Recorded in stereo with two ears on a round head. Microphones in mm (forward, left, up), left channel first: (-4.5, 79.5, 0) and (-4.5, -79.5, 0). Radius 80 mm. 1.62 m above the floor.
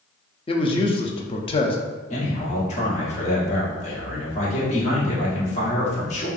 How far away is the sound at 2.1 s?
About 1.2 m.